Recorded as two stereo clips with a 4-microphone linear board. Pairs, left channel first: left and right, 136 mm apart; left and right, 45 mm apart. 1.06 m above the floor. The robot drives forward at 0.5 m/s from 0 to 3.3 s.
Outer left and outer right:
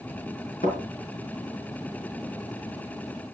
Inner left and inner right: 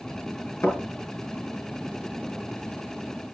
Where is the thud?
80° left, 6 m.